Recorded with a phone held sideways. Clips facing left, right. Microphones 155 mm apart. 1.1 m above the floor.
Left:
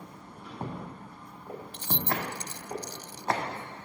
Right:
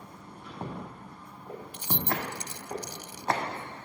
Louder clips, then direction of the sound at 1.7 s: Even; 15° right (ahead or behind).